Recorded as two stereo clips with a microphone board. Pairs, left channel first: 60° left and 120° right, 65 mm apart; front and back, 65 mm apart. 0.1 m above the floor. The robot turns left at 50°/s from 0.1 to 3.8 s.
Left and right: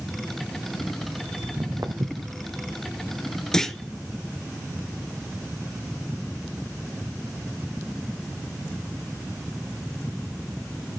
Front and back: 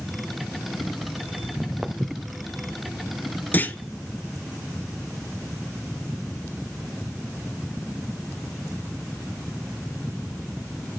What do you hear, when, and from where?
1.4 s footsteps: 75° right, 1.2 m; by 2.4 s 120° right, 1.2 m
3.5 s a clunk: 10° right, 0.5 m; by 3.8 s 20° right, 0.5 m